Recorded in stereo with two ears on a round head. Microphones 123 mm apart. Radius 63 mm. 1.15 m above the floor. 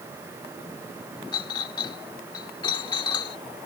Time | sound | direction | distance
1.3 | a clink | 35° left (ahead or behind) | ?